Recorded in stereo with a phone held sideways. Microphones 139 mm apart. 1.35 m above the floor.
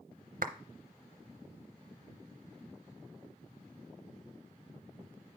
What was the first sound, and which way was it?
A clap, 70° right (ahead or behind).